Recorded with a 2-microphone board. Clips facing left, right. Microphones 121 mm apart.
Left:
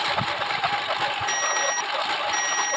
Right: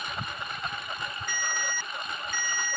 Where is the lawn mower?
85° left.